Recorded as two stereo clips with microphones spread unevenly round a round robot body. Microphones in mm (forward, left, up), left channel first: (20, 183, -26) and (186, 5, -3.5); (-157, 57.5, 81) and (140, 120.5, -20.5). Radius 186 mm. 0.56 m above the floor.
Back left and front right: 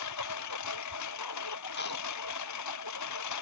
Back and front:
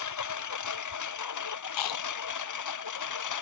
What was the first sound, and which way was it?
A lawn mower, 170° left.